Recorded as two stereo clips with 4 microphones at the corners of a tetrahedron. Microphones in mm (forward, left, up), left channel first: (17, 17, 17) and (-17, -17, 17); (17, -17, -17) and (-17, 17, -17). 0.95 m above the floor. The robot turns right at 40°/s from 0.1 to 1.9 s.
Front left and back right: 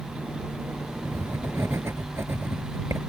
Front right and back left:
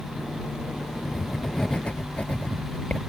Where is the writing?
145° right; by 3.0 s 110° right.